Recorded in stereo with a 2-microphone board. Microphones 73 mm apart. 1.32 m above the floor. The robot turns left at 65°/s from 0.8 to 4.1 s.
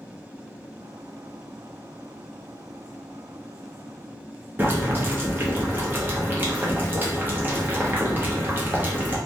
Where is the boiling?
30° right (ahead or behind), 0.7 m.